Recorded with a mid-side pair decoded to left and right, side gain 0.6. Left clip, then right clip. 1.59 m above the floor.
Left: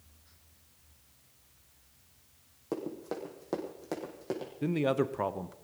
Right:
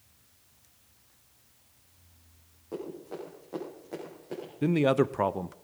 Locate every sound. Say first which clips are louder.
2.7 s running footsteps: left 2 dB; 55° left, 5 m; by 4.5 s 75° left, 5 m
4.6 s a man speaking: right 5 dB; 25° right, 0.6 m